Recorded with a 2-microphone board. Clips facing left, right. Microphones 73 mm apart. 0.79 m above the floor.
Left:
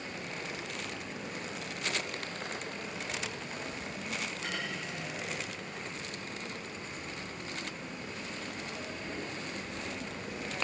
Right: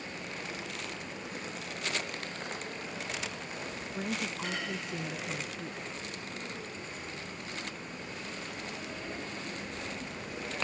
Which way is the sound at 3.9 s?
55° right (ahead or behind).